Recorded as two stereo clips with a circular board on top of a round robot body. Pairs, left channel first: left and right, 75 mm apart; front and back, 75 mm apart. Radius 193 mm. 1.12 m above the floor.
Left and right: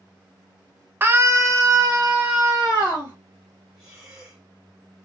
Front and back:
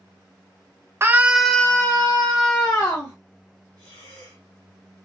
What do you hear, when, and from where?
1.0 s a scream: 140° right, 0.6 m; by 3.1 s 30° right, 1.4 m
3.8 s breathing: 15° right, 0.7 m